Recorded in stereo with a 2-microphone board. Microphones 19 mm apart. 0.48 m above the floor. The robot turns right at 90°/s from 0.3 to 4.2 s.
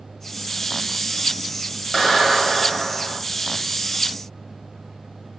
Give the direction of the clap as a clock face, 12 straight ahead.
6 o'clock.